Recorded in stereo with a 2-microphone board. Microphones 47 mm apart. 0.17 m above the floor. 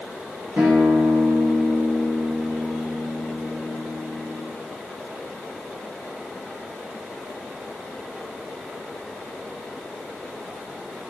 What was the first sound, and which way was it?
A guitar, 55° right (ahead or behind).